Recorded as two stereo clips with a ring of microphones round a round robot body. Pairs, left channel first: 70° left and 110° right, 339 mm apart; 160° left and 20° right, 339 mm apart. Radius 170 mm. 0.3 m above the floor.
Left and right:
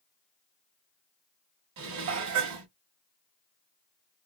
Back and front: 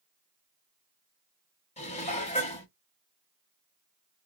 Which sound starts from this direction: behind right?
Dishes clattering, at 1.8 s.